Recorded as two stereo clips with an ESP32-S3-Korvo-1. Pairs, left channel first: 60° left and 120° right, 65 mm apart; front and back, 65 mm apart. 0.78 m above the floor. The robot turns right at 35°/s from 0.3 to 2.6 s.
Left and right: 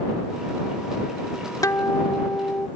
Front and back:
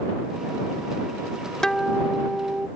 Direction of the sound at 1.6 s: 80° left.